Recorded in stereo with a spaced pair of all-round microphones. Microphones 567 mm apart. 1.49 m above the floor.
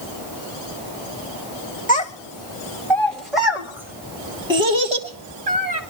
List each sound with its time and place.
1.9 s a child speaking: 15° left (ahead or behind), 1.9 m; by 5.8 s 15° right (ahead or behind), 3.5 m